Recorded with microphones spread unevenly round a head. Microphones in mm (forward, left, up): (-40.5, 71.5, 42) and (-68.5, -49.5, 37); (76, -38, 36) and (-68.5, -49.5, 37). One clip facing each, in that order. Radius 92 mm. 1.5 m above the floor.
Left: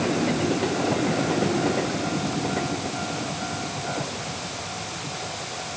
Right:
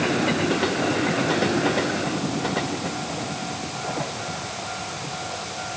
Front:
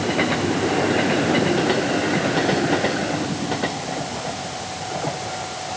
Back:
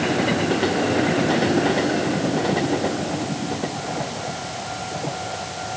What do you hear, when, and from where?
Only background noise.